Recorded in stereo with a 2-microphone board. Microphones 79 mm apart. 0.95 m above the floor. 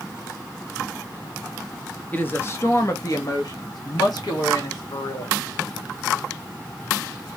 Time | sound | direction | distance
2.1 | a woman speaking | 20° left (ahead or behind) | 1.0 m